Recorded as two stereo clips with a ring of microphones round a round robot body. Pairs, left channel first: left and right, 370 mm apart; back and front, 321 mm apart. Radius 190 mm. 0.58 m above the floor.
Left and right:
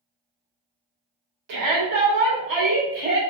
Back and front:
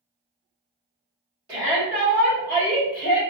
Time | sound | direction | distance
1.5 | a shout | 75° right | 1.3 m